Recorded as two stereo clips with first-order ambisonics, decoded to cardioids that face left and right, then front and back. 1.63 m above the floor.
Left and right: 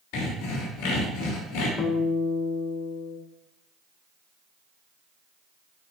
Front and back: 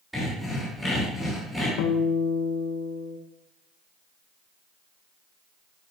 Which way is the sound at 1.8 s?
25° left.